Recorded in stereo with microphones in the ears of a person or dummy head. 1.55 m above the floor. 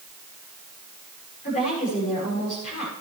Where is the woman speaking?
40° left (ahead or behind), 6.5 m.